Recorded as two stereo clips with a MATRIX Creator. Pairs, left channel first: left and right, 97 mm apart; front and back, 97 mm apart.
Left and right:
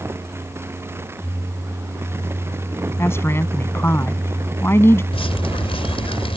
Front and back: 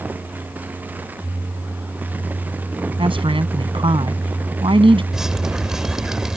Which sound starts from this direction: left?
Dripping, at 5.1 s.